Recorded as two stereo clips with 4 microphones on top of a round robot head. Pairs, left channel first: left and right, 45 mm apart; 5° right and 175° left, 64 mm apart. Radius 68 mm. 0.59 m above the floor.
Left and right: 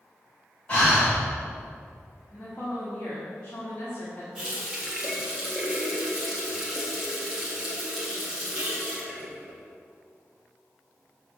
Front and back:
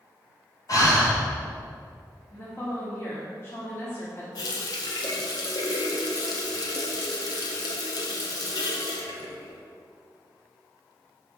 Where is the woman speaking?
40° left, 2.0 m.